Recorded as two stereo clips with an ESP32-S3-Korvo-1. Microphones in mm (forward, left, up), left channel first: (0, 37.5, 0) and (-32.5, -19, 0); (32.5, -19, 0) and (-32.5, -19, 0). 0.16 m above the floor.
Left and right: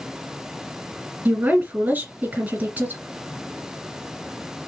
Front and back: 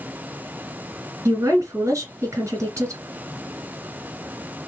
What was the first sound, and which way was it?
A woman speaking, 170° right.